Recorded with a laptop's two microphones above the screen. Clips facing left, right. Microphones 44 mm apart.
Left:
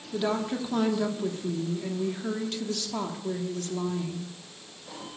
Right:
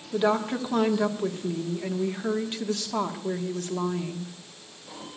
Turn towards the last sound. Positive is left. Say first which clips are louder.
# right 4 dB
turn(degrees=-25)  # may be behind; listen again after turning